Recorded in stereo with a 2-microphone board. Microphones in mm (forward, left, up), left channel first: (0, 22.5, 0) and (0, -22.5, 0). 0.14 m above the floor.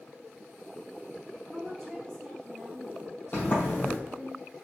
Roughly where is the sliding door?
Left.